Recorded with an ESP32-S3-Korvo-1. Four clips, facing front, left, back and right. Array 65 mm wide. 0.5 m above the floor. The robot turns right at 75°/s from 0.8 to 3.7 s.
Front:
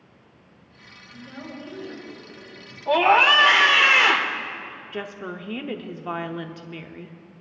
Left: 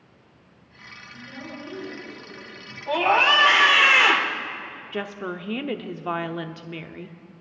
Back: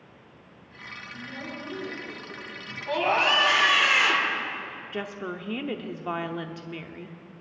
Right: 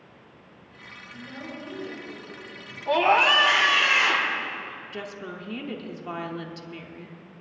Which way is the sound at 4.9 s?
95° left.